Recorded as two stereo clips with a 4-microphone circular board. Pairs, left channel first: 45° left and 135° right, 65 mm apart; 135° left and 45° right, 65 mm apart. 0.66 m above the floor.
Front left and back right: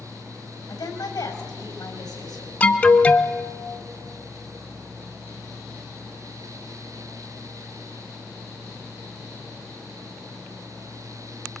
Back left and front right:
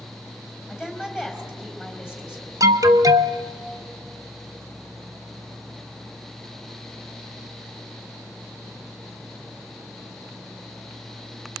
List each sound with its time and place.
0.7 s a woman speaking: 40° left, 4.5 m
2.6 s an alarm: 25° right, 0.9 m